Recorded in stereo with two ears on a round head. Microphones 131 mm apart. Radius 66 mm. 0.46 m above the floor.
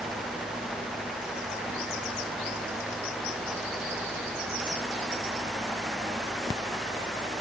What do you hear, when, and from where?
Only background noise.